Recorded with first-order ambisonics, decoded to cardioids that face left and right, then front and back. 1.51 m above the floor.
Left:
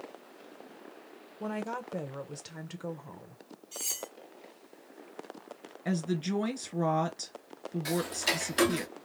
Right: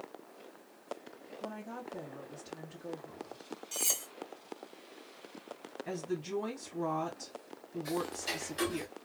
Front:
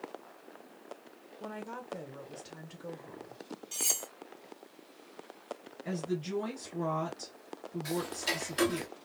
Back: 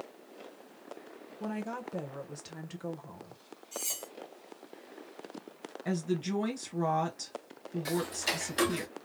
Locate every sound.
1.4 s a woman speaking: 115° left, 1.0 m
3.7 s cutlery clinking: 50° right, 1.5 m
5.8 s a woman speaking: 115° left, 1.9 m
7.8 s ticking: 105° left, 0.6 m